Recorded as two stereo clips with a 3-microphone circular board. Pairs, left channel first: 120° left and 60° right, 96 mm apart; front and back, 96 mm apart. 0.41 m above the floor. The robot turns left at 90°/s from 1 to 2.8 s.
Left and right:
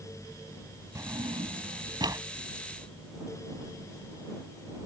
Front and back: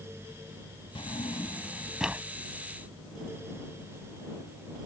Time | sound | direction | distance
0.9 | a drawer | 5° right | ?